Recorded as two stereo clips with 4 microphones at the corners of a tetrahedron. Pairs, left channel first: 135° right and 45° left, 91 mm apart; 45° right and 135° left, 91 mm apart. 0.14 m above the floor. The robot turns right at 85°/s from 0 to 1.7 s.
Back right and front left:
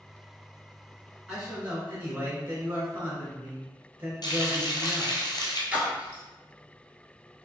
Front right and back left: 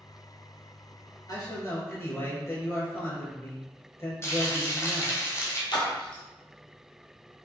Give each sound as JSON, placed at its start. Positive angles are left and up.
{"t": 1.3, "sound": "a man speaking", "azimuth_deg": -50, "distance_m": 1.9}
{"t": 4.2, "sound": "frying", "azimuth_deg": -100, "distance_m": 1.1}
{"t": 5.7, "sound": "a splash", "azimuth_deg": -25, "distance_m": 1.0}